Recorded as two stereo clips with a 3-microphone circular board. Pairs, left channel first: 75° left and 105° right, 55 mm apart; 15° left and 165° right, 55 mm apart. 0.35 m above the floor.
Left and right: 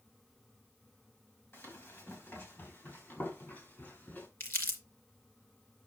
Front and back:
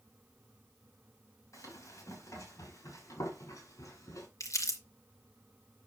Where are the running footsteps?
30° left, 6.5 m; by 4.3 s 25° left, 5 m.